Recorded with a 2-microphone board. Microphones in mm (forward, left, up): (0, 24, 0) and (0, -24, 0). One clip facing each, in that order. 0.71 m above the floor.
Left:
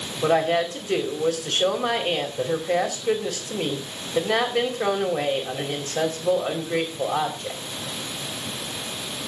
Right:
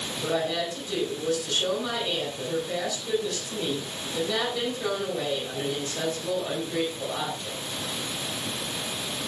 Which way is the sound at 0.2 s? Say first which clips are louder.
Left 7 dB; 55° left (ahead or behind).